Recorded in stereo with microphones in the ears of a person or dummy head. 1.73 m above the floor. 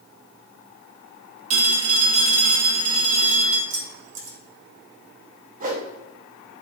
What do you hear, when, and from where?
1.5 s a phone ringing: 40° right (ahead or behind), 1.7 m
3.7 s keys jangling: 65° right (ahead or behind), 2.0 m
5.6 s a whoosh: 40° right (ahead or behind), 1.2 m